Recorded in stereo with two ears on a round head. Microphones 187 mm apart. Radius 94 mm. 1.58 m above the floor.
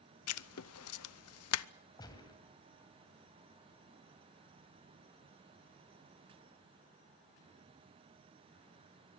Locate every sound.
0.3 s writing: 85° left, 0.7 m
2.0 s a gunshot: 20° left (ahead or behind), 3 m